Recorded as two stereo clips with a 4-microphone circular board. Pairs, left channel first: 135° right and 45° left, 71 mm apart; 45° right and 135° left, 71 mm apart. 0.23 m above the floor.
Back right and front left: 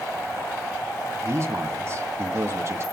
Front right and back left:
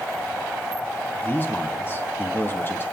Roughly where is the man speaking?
Ahead.